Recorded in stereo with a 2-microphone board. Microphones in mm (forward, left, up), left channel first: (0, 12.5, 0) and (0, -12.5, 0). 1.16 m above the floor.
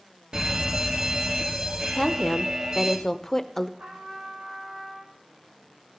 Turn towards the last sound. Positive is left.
turn(degrees=-85)